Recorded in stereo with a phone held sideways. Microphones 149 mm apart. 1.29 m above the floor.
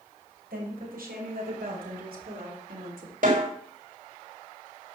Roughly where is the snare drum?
Right.